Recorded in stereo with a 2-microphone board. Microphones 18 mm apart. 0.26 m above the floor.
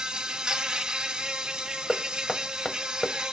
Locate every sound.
0.0 s an insect: 65° right (ahead or behind), 0.9 m
1.9 s knocking: 25° left (ahead or behind), 0.6 m